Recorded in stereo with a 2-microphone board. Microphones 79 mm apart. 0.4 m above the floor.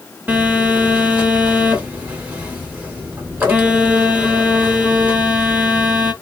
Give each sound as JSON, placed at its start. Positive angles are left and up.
{"t": 0.3, "sound": "a phone buzzing", "side_deg": -20, "distance_m": 1.1}